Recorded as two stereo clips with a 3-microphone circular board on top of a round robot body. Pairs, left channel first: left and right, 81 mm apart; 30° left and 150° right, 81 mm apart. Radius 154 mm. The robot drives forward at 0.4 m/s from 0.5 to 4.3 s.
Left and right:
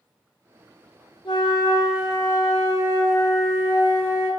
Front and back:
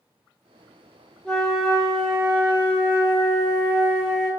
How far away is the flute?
About 0.8 m.